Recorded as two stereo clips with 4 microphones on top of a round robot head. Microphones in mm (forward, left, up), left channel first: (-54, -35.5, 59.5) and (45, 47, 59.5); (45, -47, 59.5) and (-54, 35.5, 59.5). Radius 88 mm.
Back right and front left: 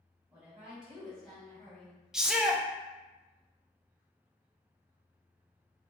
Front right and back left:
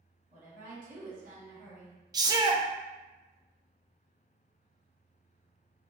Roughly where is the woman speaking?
Left.